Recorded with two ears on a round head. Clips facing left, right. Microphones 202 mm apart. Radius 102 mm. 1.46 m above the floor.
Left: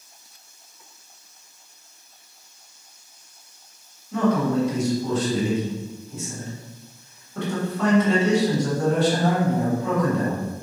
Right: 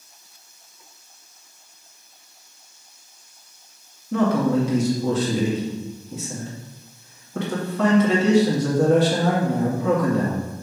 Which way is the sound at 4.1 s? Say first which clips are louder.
Right 2 dB; 60° right (ahead or behind).